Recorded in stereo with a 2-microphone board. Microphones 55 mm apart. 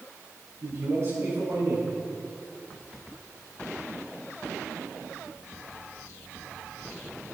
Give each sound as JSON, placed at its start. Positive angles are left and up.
{"t": 0.6, "sound": "a man speaking", "side_deg": -50, "distance_m": 4.5}